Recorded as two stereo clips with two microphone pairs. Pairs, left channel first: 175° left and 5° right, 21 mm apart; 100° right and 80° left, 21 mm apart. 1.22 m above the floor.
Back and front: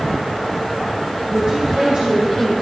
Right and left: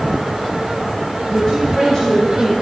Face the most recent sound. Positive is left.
turn(degrees=-30)